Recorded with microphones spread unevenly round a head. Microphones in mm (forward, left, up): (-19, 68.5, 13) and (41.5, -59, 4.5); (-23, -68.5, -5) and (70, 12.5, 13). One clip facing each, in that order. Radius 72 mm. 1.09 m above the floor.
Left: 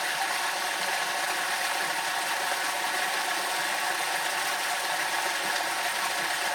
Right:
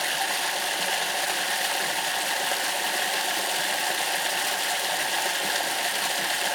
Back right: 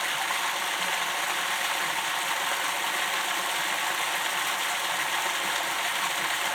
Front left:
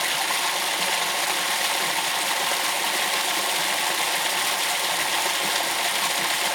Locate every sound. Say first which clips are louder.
0.0 s running water: right 1 dB, front left 3 dB; 15° right, 0.7 m